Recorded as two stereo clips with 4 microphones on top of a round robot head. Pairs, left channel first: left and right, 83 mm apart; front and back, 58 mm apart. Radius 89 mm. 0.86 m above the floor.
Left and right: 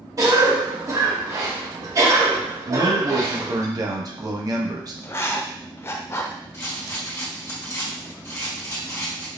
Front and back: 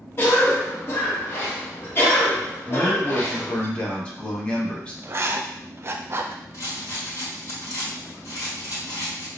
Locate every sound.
0.2 s a cough: 45° right, 1.0 m
2.7 s a man speaking: 65° right, 0.9 m
5.0 s writing: 140° left, 0.5 m
6.5 s a rattle: 30° left, 1.3 m